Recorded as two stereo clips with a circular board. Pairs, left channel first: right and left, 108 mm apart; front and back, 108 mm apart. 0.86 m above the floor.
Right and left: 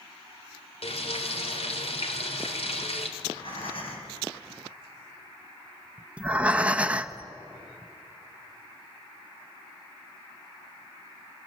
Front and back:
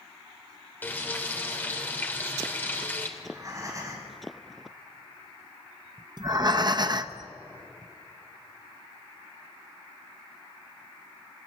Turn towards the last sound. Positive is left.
turn(degrees=165)